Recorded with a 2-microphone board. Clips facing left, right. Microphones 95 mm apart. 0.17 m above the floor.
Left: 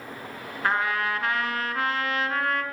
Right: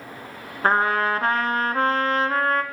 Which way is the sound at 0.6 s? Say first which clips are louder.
Right 5 dB; 40° right (ahead or behind).